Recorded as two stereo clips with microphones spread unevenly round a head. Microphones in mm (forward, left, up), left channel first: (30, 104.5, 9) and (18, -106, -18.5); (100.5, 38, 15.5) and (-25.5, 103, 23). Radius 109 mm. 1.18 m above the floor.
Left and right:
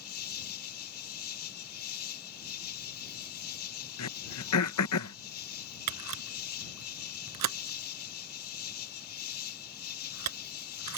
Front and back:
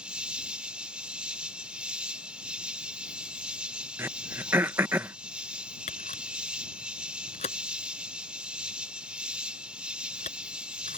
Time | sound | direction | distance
0.0 | an insect | 70° left | ?
4.0 | throat clearing | 80° left | ?
5.9 | a camera shutter | 90° right | ?